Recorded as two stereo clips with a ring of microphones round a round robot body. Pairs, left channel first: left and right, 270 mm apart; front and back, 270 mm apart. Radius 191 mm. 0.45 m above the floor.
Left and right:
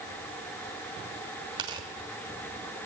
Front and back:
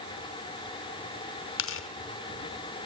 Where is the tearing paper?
20° right, 1.3 m.